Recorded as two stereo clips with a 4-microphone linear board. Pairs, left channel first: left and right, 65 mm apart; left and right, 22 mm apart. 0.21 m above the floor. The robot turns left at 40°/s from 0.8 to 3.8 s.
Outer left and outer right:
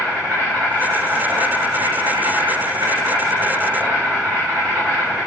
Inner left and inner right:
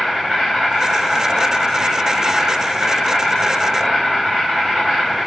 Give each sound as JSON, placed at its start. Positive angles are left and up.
{"t": 0.0, "sound": "an insect", "azimuth_deg": -35, "distance_m": 3.5}